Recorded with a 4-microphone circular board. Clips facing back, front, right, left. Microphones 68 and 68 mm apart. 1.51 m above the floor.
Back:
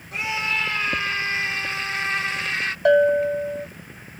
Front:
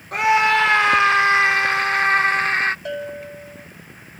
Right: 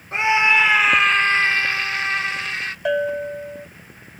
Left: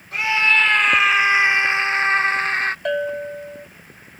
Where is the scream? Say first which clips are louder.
Front 10 dB, right 2 dB; 30° right; by 2.8 s 45° left.